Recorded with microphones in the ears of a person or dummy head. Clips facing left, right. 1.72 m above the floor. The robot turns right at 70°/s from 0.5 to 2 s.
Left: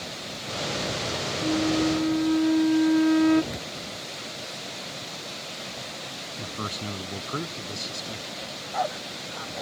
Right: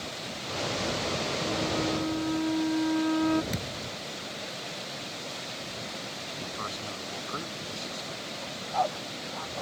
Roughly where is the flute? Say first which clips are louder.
Left 9 dB; left.